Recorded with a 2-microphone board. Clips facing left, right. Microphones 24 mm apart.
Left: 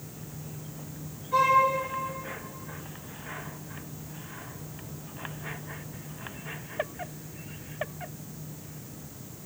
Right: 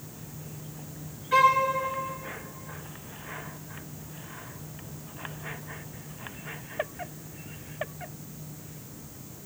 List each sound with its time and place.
1.3 s a violin: 65° right (ahead or behind), 2.5 m